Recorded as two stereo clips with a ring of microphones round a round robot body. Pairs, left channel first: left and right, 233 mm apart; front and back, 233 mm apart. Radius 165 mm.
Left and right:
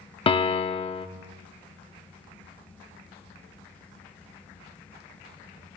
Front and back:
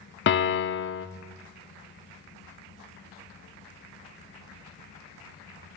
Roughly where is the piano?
Ahead left.